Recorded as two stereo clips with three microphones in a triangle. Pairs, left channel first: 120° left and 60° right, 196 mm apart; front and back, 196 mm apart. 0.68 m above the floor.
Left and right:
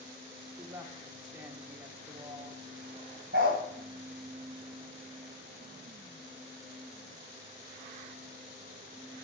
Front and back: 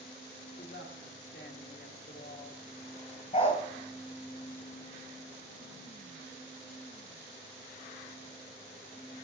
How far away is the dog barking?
About 1.4 m.